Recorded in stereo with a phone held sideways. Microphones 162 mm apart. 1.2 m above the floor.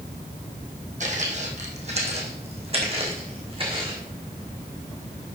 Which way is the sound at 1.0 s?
50° right (ahead or behind).